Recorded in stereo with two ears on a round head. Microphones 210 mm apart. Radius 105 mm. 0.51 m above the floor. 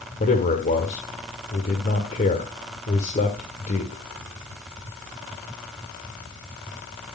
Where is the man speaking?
35° left (ahead or behind), 1.8 m.